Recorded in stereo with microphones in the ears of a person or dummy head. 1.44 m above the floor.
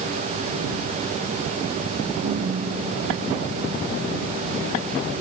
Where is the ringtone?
70° right (ahead or behind).